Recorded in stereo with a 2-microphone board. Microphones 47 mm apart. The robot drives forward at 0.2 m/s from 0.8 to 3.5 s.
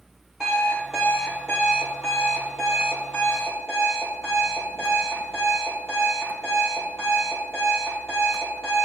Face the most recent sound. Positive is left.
turn(degrees=-10)  # may be behind; listen again after turning